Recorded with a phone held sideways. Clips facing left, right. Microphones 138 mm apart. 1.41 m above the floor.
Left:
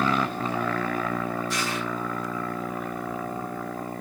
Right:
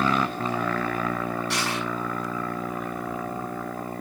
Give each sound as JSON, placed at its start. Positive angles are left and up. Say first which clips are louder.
{"t": 1.5, "sound": "crushing", "louder": "right 1 dB", "side_deg": -75, "distance_m": 7.0}